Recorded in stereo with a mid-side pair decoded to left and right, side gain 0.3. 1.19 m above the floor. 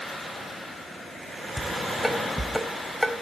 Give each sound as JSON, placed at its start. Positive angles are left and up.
{"t": 1.6, "sound": "dishes clattering", "azimuth_deg": 0, "distance_m": 3.5}